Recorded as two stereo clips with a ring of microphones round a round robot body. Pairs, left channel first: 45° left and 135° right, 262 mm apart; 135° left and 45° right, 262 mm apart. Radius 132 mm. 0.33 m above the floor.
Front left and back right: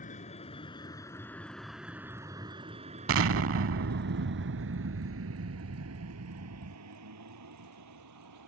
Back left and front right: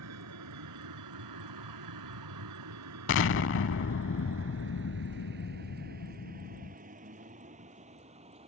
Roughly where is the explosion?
Behind.